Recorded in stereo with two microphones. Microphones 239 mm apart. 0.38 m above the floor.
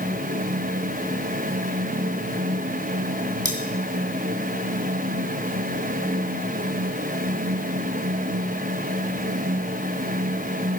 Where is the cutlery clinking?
75° left (ahead or behind), 2.5 m.